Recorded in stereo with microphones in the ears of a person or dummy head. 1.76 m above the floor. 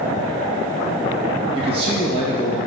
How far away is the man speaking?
About 2 m.